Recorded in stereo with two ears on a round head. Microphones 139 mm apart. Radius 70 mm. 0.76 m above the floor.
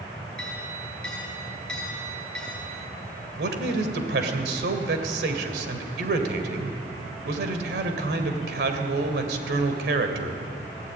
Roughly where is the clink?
Centre.